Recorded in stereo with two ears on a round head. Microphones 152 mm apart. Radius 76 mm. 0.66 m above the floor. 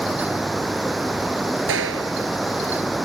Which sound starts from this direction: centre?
Running water, at 0.0 s.